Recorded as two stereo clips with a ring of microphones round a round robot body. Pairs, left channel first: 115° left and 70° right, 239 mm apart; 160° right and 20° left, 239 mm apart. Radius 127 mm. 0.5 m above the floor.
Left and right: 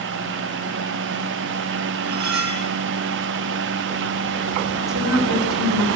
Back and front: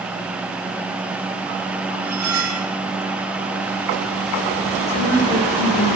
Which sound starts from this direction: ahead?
Cutlery clinking, at 2.0 s.